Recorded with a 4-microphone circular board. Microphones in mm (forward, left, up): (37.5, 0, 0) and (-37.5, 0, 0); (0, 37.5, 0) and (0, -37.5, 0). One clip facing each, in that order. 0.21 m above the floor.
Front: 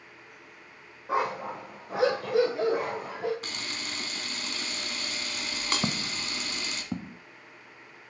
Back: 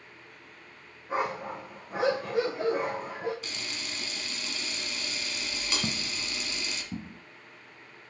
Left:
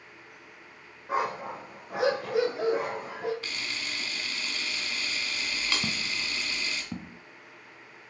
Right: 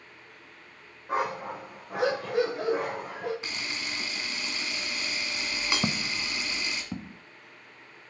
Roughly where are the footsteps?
Ahead right.